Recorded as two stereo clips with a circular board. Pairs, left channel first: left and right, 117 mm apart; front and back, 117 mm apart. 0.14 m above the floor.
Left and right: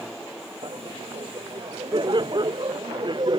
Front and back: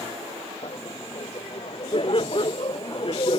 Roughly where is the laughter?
Ahead right.